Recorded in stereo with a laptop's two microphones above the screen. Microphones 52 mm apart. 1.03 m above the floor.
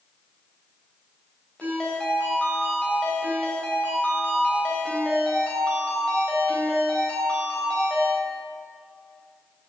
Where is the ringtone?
20° left (ahead or behind), 3.5 m.